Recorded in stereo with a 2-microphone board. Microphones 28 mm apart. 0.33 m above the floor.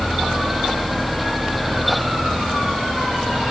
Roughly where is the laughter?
No laughter in this recording.